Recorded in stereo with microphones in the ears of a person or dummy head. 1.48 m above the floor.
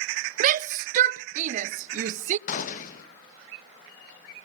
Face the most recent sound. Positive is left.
turn(degrees=50)  # may be behind; listen again after turning